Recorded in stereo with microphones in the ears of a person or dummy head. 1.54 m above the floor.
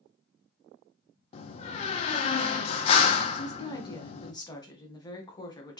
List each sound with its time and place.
1.3 s a door slam: 35° left (ahead or behind), 0.8 m
3.3 s a woman speaking: 20° left (ahead or behind), 1.2 m